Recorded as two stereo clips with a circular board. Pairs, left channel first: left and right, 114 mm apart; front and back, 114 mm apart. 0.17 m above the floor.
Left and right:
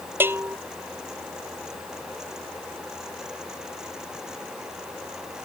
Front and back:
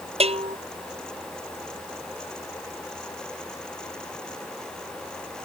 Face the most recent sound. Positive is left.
turn(degrees=-160)